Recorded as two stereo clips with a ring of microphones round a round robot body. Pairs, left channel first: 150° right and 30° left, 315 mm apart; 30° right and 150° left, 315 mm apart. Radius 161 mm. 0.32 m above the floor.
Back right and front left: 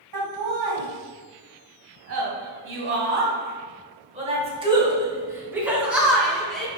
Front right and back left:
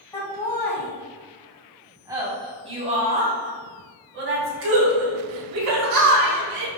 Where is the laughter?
50° left, 2.5 m; by 6.7 s 125° left, 3 m.